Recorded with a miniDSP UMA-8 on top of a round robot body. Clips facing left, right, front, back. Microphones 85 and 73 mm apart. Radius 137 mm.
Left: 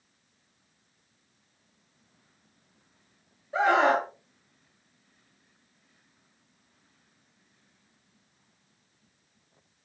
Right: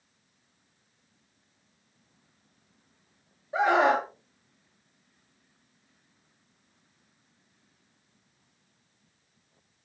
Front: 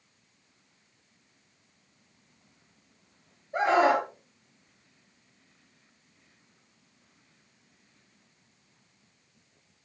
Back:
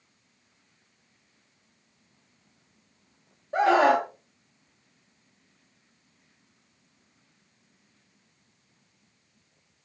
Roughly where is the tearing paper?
I don't hear tearing paper.